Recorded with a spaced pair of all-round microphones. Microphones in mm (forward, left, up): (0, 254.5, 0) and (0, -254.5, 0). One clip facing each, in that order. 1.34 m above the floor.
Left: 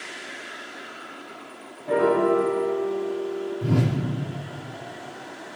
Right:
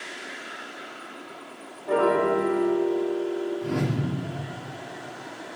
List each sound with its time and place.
1.9 s a piano: 45° left (ahead or behind), 2 m
3.6 s a whoosh: 55° left (ahead or behind), 1.1 m